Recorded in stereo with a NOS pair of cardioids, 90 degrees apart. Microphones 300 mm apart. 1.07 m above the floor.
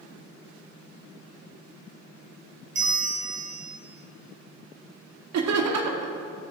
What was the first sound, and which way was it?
A bell, 40° right.